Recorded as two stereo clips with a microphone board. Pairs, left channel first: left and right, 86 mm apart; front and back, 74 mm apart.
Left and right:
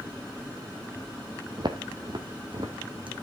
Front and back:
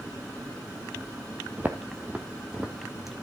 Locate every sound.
1.6 s footsteps: 120° right, 1.2 m; by 3.1 s 95° right, 1.9 m